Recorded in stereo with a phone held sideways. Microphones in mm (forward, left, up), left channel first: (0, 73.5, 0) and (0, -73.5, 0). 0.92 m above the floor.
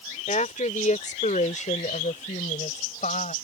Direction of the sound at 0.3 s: 55° left (ahead or behind).